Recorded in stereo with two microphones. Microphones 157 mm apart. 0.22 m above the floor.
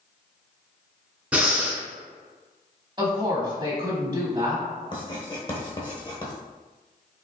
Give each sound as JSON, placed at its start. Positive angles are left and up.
{"t": 1.3, "sound": "breathing", "side_deg": -10, "distance_m": 1.0}
{"t": 3.0, "sound": "a woman speaking", "side_deg": -30, "distance_m": 1.0}
{"t": 4.9, "sound": "writing", "side_deg": 30, "distance_m": 1.0}